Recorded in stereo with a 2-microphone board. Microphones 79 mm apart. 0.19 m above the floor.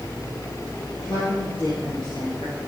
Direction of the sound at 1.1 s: 75° left (ahead or behind).